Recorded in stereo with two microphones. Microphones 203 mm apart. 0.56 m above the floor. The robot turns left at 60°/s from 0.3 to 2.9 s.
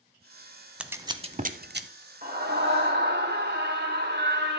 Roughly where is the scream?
Ahead right.